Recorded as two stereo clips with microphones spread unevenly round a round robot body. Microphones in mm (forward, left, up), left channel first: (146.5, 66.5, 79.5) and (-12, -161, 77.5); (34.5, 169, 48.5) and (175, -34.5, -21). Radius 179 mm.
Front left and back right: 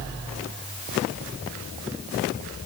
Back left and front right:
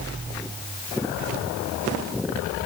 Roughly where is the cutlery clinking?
I don't hear cutlery clinking.